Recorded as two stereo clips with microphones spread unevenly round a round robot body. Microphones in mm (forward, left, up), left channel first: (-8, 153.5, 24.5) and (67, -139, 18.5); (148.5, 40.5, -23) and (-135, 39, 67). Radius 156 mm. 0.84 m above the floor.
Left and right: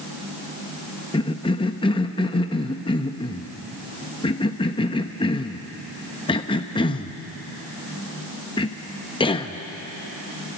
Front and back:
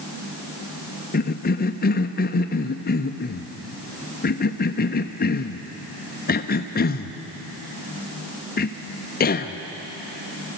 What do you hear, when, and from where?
1.1 s a cough: 30° left, 0.9 m